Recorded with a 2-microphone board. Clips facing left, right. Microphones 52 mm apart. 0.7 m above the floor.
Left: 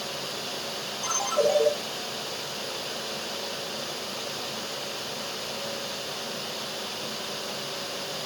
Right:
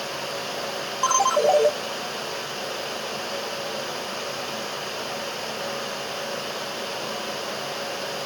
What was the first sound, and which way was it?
A ringtone, 85° right.